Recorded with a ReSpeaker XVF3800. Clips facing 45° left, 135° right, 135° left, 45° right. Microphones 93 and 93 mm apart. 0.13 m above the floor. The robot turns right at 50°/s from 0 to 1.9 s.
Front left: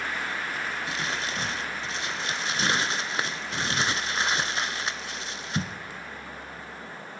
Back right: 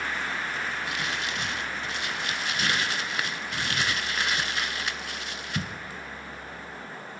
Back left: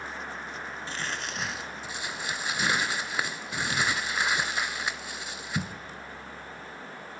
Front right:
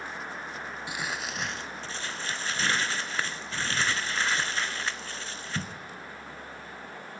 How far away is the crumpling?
About 0.5 m.